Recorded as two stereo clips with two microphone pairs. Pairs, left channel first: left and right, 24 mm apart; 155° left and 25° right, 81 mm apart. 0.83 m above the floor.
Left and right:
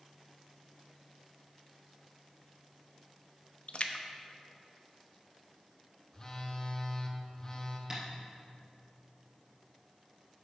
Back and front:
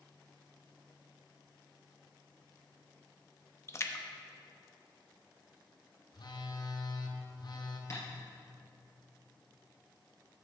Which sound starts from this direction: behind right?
Tapping, at 7.9 s.